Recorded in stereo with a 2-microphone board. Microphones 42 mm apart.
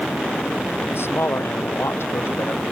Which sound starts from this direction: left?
A man speaking, at 0.9 s.